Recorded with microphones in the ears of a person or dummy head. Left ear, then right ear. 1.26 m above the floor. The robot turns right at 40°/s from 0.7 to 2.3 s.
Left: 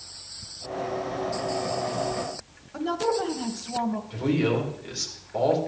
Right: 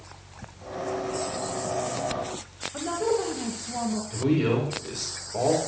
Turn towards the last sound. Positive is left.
turn(degrees=10)  # may be behind; listen again after turning